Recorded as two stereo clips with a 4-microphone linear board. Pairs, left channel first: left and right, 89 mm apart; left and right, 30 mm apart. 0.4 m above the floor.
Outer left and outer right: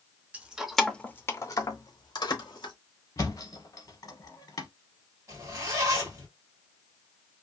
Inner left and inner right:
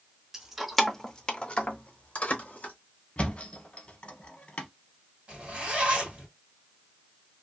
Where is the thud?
45° left (ahead or behind), 0.8 m.